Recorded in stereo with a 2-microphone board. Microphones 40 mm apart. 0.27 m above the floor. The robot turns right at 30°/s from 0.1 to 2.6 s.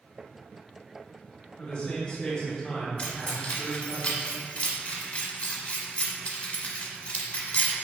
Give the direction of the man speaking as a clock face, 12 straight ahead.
9 o'clock.